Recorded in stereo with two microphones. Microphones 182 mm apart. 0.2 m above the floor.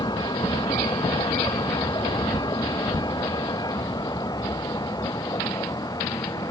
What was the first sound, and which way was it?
A vehicle, 20° left (ahead or behind).